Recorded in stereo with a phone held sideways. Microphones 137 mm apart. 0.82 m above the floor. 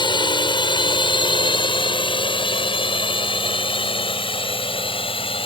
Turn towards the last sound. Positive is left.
turn(degrees=40)  # may be behind; listen again after turning